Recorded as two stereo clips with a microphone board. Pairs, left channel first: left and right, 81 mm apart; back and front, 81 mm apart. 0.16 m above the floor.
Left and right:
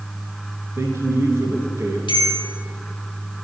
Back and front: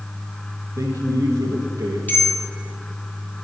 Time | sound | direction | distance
0.8 | a man speaking | 40° right | 1.9 m
2.1 | a bell | 110° left | 1.2 m